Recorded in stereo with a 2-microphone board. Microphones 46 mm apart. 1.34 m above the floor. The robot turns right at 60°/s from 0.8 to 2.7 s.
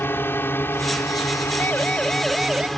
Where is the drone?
50° left (ahead or behind); by 2.8 s 5° left (ahead or behind).